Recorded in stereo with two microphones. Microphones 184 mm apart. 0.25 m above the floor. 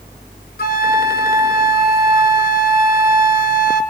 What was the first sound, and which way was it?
A flute, 55° left (ahead or behind).